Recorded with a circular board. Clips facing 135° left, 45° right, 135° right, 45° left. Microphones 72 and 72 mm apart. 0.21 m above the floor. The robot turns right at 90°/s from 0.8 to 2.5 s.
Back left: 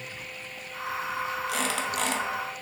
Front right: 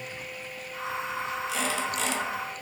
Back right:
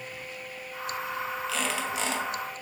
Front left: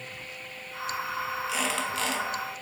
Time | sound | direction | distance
1.5 | a squeak | 115° left | 0.6 m